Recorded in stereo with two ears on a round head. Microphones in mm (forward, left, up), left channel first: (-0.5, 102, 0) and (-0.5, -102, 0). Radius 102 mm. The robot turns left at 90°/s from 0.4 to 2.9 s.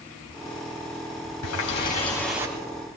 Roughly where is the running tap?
Left.